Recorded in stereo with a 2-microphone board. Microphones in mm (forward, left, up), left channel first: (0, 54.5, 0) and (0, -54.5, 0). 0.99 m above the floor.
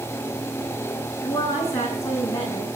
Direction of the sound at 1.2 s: 30° left (ahead or behind).